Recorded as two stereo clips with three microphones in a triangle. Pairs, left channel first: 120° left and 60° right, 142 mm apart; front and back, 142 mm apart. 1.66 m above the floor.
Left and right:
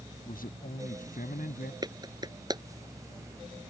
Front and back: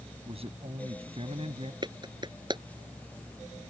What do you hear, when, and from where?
0.2 s a man speaking: 135° left
1.8 s a clap: 120° right